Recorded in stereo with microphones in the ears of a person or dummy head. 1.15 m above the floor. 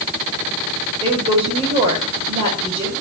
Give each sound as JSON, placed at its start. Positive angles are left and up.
{"t": 1.0, "sound": "a woman speaking", "side_deg": -30, "distance_m": 5.5}